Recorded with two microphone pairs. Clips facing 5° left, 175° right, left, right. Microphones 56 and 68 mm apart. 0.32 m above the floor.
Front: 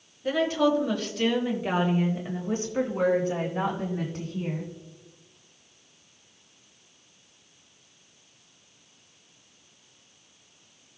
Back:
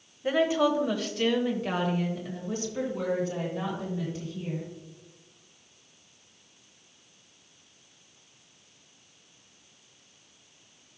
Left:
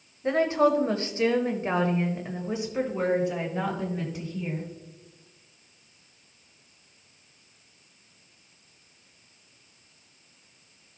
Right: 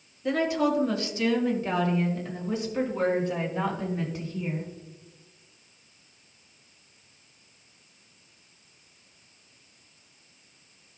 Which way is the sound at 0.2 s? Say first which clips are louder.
Even, left 3 dB; 125° left.